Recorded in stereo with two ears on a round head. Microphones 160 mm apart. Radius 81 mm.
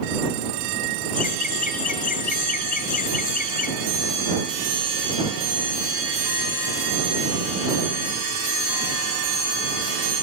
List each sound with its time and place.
1.1 s laughter: 50° left (ahead or behind)